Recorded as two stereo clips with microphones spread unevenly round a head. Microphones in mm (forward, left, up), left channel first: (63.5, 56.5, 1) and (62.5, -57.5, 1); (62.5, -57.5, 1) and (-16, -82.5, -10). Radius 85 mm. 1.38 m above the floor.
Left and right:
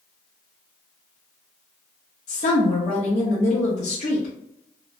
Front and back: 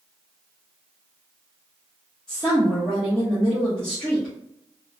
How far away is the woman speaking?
About 0.6 m.